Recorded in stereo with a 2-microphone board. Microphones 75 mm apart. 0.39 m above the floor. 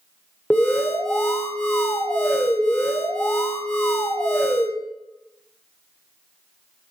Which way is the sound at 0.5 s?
25° left (ahead or behind).